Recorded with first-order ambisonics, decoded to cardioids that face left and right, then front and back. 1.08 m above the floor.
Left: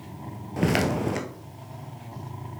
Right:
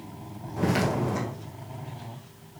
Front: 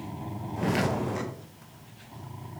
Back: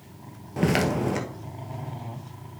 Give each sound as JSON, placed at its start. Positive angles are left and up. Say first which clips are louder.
{"t": 0.6, "sound": "footsteps", "louder": "left 1 dB, back 4 dB", "azimuth_deg": 130, "distance_m": 1.5}